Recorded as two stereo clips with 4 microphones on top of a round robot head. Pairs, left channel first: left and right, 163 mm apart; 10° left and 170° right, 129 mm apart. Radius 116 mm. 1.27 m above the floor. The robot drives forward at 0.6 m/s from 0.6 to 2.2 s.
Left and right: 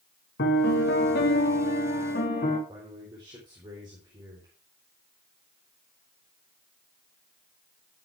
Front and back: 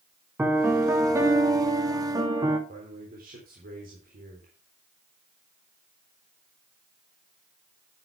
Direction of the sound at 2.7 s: 160° right.